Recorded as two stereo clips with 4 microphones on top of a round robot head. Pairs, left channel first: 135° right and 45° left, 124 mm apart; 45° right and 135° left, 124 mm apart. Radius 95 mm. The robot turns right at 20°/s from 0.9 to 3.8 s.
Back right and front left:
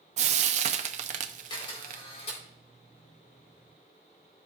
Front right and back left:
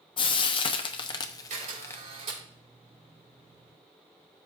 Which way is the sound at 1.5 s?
165° left.